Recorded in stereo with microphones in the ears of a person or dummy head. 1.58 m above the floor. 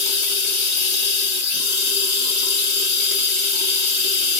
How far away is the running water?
About 1.1 m.